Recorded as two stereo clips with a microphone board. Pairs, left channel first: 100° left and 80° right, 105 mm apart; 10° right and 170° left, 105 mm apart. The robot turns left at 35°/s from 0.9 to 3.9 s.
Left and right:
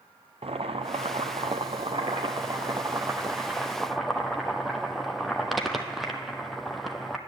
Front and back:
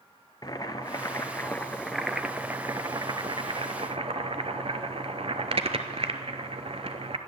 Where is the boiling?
65° right, 0.7 m; by 7.2 s 170° right, 0.7 m.